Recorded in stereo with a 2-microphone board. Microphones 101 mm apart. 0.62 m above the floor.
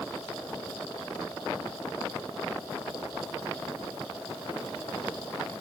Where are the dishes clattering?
I don't hear dishes clattering.